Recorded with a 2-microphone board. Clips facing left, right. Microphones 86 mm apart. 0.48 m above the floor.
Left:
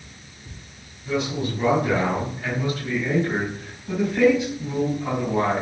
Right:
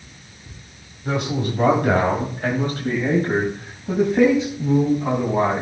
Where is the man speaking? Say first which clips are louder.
Right 2 dB; 65° right (ahead or behind), 3 m; by 5.6 s 25° right (ahead or behind), 4 m.